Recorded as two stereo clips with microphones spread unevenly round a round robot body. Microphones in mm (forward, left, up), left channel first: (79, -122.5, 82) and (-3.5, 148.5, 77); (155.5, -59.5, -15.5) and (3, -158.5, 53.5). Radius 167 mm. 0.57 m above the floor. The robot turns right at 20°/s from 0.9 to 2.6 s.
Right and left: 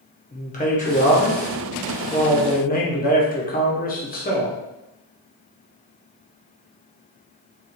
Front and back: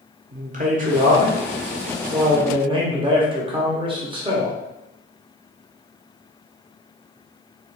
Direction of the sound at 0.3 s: 105° right.